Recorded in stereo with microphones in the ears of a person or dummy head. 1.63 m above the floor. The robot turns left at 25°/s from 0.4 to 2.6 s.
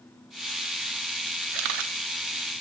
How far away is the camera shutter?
About 0.8 m.